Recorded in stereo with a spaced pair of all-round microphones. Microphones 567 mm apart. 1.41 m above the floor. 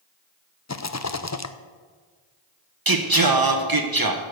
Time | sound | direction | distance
0.7 | a rattle | 30° left (ahead or behind) | 0.6 m
2.9 | singing | 35° right (ahead or behind) | 1.2 m